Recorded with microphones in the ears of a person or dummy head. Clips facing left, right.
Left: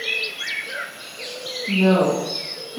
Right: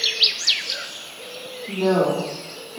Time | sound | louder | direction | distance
1.7 | a woman speaking | left 2 dB | 50° left (ahead or behind) | 2.5 m